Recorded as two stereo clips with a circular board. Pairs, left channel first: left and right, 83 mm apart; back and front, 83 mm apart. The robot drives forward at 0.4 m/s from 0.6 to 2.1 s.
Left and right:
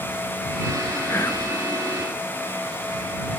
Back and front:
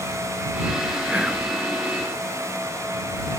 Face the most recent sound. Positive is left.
turn(degrees=95)